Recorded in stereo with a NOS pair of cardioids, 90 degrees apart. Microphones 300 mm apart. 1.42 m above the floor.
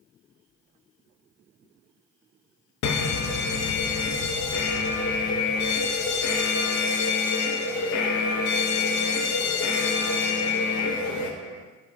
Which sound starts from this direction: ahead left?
An alarm, at 2.8 s.